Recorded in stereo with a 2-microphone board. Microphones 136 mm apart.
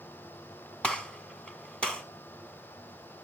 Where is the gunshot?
10° left (ahead or behind), 1.8 m.